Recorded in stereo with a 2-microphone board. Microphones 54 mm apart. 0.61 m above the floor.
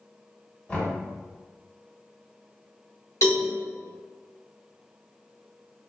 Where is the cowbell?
70° left (ahead or behind), 1.7 m.